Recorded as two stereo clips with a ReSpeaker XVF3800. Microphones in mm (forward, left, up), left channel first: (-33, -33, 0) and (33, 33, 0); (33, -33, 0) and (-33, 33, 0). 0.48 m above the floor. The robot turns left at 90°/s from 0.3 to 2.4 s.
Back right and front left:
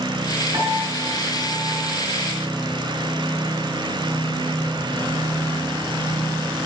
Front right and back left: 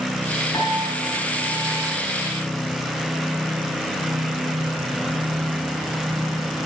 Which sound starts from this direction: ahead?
A piano, at 0.5 s.